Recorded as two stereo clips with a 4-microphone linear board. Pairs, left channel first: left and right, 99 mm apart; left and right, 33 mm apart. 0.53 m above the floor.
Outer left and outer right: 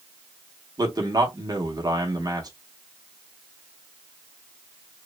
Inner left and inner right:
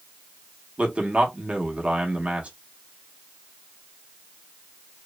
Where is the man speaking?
40° right (ahead or behind), 0.8 m.